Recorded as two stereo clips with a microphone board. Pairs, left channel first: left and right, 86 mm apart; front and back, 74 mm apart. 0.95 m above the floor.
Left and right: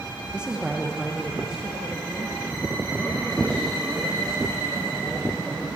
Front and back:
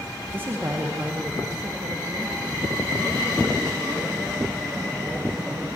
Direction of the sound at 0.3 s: 155° right.